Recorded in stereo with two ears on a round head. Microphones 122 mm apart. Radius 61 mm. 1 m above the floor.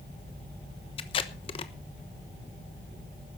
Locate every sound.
1.0 s tape being pulled: 40° left (ahead or behind), 1.0 m